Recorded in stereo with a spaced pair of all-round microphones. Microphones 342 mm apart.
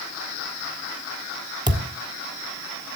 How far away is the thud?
About 1.5 m.